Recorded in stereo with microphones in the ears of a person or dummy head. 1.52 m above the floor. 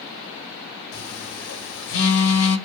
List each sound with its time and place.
0.9 s a phone buzzing: 70° left (ahead or behind), 0.7 m